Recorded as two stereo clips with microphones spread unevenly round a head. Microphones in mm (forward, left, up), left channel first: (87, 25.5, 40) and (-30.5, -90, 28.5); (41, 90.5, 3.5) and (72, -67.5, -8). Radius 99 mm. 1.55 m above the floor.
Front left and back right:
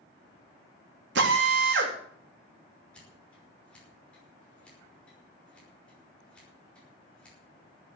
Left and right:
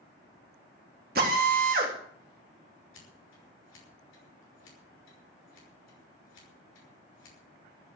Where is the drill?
130° right, 3 m.